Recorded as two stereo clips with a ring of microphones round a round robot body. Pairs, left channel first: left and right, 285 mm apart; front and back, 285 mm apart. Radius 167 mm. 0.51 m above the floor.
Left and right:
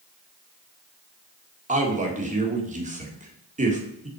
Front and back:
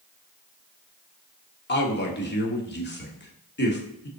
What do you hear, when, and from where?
1.7 s a man speaking: 35° right, 1.8 m